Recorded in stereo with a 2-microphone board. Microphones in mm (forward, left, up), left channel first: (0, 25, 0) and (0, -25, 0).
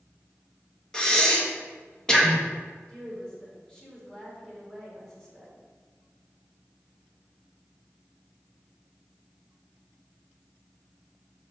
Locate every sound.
0.9 s breathing: 15° left (ahead or behind), 1.2 m
2.9 s a woman speaking: 15° left (ahead or behind), 3.5 m